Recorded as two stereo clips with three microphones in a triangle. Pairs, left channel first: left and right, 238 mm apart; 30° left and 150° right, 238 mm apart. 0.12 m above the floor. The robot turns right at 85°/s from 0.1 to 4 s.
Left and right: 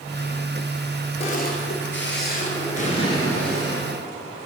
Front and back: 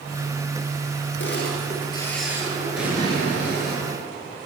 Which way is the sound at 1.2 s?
35° left.